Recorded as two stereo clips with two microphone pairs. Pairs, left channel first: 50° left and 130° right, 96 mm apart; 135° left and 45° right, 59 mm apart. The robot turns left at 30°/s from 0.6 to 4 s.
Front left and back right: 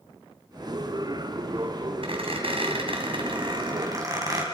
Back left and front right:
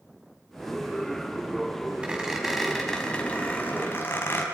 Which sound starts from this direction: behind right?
A squeak, at 2.0 s.